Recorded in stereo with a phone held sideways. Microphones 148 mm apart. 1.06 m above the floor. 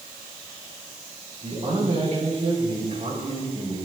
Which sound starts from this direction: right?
A man speaking, at 1.4 s.